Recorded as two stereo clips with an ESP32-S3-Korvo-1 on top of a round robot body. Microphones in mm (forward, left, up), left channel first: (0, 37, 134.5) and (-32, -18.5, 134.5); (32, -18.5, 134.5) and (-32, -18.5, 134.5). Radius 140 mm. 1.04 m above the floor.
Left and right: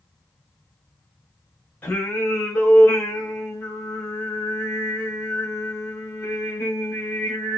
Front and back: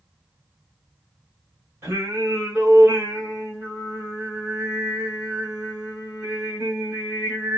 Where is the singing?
125° left, 1.3 m.